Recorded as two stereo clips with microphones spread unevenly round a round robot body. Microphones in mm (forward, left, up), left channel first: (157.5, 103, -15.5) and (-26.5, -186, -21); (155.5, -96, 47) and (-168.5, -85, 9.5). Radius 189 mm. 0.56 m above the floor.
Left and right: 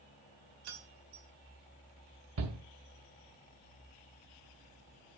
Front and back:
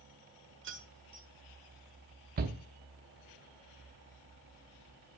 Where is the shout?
145° right, 0.8 m.